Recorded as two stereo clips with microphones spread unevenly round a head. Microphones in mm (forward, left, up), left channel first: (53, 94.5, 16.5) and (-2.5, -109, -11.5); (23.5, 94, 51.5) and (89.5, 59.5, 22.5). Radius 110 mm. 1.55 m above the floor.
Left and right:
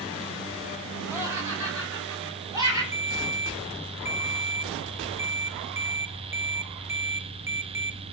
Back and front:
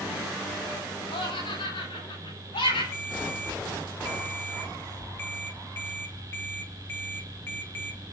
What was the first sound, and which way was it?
Laughter, 175° left.